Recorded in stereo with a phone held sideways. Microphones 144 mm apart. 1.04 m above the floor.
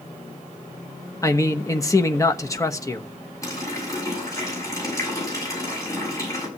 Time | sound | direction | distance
1.2 | a man speaking | 20° left (ahead or behind) | 1.2 m
3.4 | a running tap | 20° left (ahead or behind) | 6.5 m